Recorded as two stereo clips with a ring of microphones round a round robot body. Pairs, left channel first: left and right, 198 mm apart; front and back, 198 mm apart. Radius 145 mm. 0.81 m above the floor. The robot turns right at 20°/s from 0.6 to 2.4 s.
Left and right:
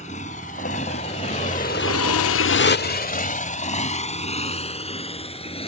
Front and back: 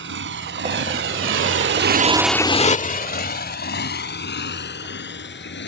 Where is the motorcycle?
160° left; by 5.7 s 30° left.